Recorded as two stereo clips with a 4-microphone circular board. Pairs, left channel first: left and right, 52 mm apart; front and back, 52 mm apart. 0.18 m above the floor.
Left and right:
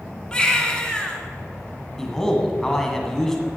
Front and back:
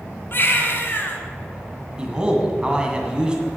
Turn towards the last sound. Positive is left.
turn(degrees=155)